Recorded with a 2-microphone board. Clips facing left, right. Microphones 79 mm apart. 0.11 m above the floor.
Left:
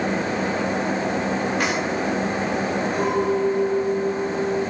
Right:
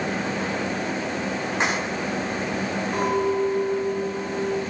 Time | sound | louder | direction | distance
1.6 | keys jangling | right 3 dB | 25° right (ahead or behind) | 5.5 m
2.9 | a clink | right 1 dB | 45° right (ahead or behind) | 7 m